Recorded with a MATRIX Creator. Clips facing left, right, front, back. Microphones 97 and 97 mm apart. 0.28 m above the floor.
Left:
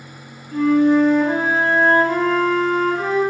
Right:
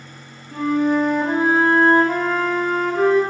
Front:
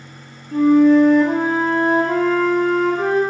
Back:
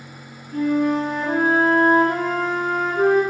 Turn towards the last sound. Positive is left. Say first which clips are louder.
# left 4 dB, front 8 dB
turn(degrees=-10)